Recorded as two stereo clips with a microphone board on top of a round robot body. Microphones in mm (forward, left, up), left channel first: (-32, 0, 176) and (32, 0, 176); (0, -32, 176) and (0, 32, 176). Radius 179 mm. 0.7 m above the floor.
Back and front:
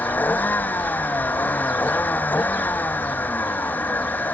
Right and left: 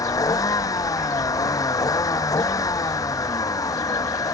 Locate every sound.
0.0 s a vehicle: 120° right